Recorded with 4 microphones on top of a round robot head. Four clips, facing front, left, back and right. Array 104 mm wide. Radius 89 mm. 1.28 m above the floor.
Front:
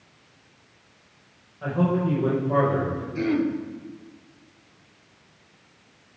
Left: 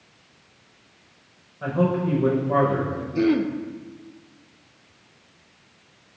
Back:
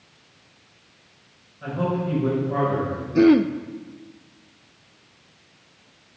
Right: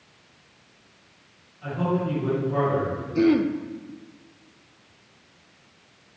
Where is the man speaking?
65° left, 5.5 m.